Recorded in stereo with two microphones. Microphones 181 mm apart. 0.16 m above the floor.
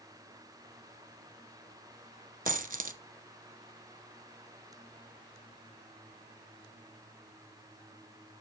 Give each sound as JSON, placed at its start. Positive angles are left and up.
{"t": 2.5, "sound": "a dropped coin", "side_deg": -50, "distance_m": 0.7}